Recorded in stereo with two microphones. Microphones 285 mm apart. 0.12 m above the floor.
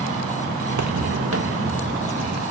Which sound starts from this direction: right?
Footsteps, at 0.7 s.